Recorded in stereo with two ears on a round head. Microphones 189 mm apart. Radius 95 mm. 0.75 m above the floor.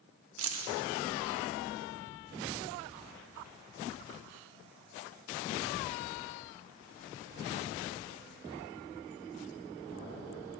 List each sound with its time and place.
0.4 s keys jangling: 75° right (ahead or behind), 0.9 m